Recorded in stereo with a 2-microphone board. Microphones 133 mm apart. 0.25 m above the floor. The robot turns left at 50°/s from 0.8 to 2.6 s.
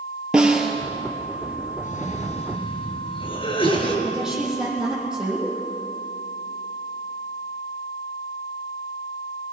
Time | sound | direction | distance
0.3 | a snare drum | 5° right (ahead or behind) | 3 m
1.8 | a cough | 85° left | 4 m
4.0 | a woman speaking | 5° right (ahead or behind) | 8 m